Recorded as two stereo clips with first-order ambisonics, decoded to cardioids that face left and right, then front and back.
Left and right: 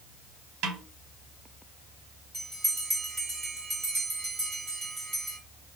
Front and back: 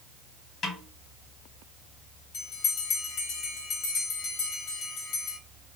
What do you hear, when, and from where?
0.6 s a snare drum: 60° right, 1.2 m
2.3 s a bell: 20° right, 1.9 m